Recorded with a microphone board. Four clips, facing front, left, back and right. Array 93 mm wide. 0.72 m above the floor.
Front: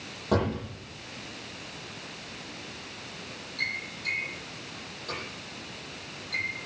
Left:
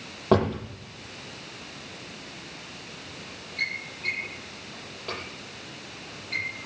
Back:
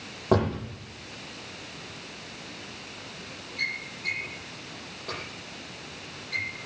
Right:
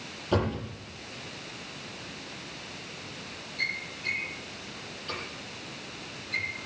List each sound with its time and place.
0.3 s a drawer: 115° left, 10 m